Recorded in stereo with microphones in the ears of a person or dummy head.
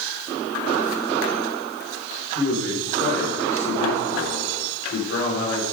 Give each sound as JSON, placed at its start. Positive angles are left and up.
{"t": 2.4, "sound": "a man speaking", "side_deg": 70, "distance_m": 6.0}